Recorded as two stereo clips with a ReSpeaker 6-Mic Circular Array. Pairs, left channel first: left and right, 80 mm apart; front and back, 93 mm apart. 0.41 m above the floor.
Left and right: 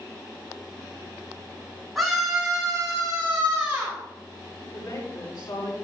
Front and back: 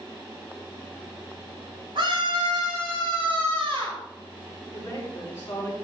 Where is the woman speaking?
65° left, 5.5 m.